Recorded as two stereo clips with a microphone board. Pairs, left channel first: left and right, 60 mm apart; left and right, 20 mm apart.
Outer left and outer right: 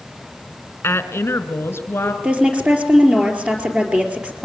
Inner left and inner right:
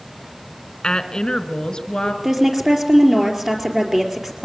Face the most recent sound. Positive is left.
turn(degrees=-20)  # may be behind; listen again after turning